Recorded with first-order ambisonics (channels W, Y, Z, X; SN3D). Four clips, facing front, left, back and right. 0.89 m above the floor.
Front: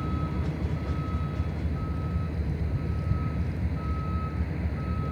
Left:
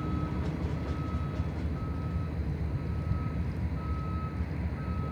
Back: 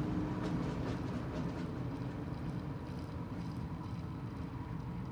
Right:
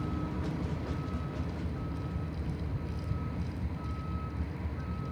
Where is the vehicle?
10° left.